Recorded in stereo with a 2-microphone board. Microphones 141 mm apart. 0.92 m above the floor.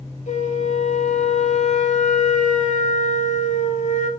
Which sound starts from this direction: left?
A flute, at 0.3 s.